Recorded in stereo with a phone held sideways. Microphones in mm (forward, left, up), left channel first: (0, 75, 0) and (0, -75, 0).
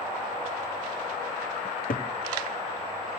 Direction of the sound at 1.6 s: 70° left (ahead or behind).